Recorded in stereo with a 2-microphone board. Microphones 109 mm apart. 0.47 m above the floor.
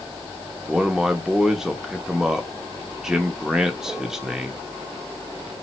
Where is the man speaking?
5° right (ahead or behind), 0.7 m.